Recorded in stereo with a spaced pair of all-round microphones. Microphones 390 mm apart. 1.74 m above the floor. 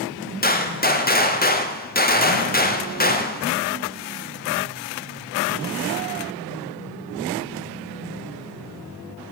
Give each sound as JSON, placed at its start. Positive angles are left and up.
{"t": 0.4, "sound": "a gunshot", "side_deg": 25, "distance_m": 0.7}